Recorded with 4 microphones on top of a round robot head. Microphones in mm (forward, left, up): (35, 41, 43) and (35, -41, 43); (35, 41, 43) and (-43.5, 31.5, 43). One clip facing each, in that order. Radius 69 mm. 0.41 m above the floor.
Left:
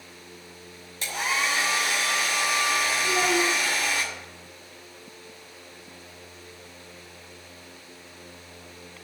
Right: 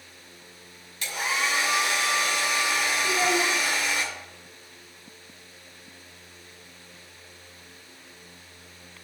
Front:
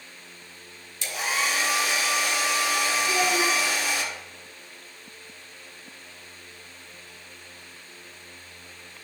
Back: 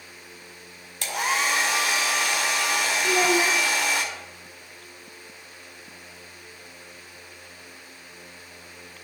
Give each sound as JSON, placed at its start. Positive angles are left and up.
{"t": 1.0, "sound": "a hair dryer", "azimuth_deg": 155, "distance_m": 1.9}
{"t": 3.0, "sound": "a child speaking", "azimuth_deg": 155, "distance_m": 1.0}